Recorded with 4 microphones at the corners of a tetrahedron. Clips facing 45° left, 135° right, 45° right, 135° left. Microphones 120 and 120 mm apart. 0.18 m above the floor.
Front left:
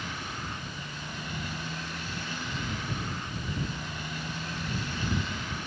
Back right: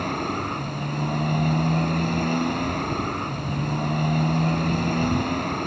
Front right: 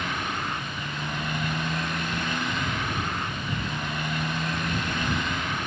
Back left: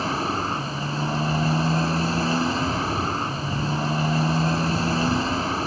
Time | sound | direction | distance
0.0 | a motorcycle | 170° right | ?